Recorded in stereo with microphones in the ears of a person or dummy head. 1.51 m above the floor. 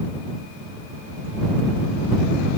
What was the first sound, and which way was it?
Only background noise.